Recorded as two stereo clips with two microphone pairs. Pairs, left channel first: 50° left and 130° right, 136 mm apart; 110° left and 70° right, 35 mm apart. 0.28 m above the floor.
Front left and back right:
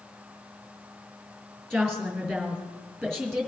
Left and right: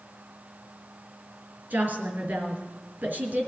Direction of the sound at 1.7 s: 40° right.